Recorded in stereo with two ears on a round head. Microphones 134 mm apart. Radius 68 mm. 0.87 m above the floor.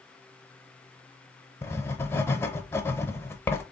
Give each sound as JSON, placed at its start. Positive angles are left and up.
{"t": 1.6, "sound": "writing", "side_deg": 15, "distance_m": 0.7}